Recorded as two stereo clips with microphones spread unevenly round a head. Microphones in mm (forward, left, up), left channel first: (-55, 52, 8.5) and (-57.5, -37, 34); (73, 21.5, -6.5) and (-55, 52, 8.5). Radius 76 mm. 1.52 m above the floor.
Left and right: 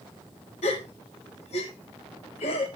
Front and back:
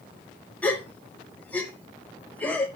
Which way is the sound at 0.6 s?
65° left.